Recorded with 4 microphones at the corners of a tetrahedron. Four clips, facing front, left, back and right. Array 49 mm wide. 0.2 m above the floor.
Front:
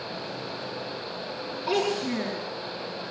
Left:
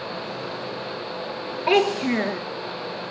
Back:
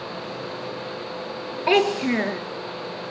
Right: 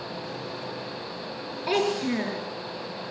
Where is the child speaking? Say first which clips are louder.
Left 5 dB, back 7 dB; 150° left, 2.5 m.